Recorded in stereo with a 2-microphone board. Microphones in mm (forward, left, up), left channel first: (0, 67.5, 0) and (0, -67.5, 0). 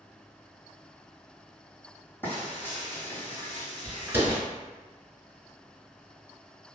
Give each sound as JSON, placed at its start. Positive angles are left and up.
{"t": 2.2, "sound": "frying", "side_deg": 15, "distance_m": 1.9}
{"t": 4.1, "sound": "a door slam", "side_deg": -20, "distance_m": 0.8}